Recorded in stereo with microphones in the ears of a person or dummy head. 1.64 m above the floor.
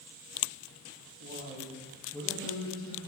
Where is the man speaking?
45° right (ahead or behind), 1.6 m; by 3.0 s 35° left (ahead or behind), 2 m.